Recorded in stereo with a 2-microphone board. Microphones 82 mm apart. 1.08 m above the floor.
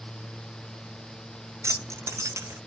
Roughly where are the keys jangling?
Right.